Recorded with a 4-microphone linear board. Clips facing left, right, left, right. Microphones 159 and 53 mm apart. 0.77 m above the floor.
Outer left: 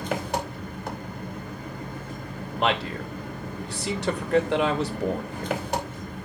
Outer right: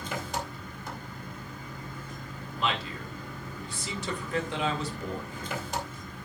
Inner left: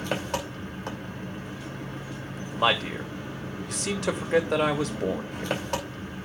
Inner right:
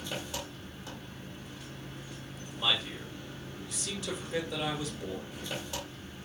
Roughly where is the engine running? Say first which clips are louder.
Outer left 6 dB, inner left 9 dB; left.